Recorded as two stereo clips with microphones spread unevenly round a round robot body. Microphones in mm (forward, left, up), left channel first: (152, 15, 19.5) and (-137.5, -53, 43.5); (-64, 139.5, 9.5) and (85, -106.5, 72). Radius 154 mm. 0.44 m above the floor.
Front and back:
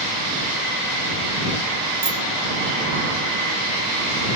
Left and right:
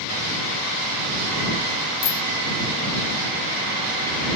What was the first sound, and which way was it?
A bicycle bell, 125° left.